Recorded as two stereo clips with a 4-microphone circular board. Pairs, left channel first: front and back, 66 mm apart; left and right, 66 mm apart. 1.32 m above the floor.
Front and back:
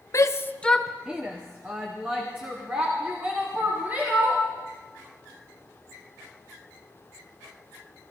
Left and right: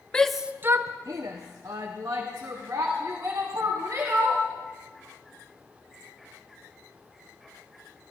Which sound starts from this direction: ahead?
A shout, at 0.1 s.